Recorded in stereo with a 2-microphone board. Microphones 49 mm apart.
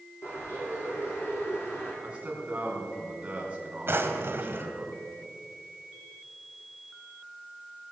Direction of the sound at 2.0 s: 25° right (ahead or behind).